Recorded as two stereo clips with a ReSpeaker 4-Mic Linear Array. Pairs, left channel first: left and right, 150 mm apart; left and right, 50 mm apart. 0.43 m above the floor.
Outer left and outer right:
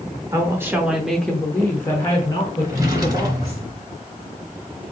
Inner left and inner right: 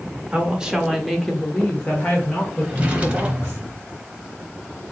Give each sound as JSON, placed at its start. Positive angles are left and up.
{"t": 0.3, "sound": "a woman speaking", "side_deg": -20, "distance_m": 0.8}
{"t": 2.6, "sound": "a drawer", "side_deg": -25, "distance_m": 0.8}